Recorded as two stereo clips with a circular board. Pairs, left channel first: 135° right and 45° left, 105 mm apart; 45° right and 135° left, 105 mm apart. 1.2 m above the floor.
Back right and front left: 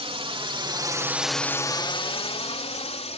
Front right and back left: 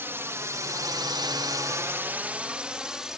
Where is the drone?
70° left; by 3.2 s 140° right.